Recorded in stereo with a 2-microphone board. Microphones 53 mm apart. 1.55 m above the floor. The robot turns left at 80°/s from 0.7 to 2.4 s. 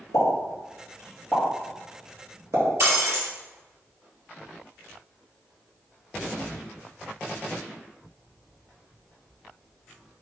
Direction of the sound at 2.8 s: 45° right (ahead or behind).